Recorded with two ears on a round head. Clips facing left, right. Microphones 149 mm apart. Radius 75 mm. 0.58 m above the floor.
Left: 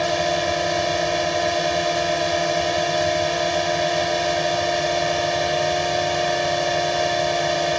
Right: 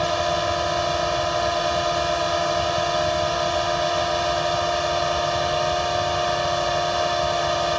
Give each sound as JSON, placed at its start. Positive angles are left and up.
{"t": 0.0, "sound": "a drone", "side_deg": 20}